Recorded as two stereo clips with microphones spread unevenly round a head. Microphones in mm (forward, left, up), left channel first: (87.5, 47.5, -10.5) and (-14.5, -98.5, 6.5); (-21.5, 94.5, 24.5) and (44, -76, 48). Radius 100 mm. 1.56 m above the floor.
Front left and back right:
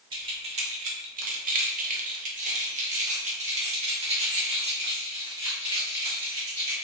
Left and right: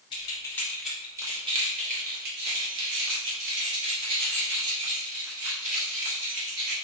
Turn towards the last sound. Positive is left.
turn(degrees=-65)